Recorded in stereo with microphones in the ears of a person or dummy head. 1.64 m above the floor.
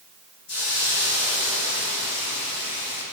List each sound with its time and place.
0.5 s a hiss: 55° left (ahead or behind), 2.5 m